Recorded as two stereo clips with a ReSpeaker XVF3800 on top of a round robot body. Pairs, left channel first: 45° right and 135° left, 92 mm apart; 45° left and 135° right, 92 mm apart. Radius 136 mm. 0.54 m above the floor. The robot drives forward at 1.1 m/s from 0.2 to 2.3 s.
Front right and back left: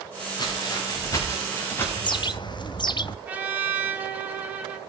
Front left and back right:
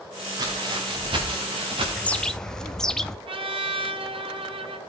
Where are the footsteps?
95° right, 9 m; by 1.9 s 115° right, 9 m.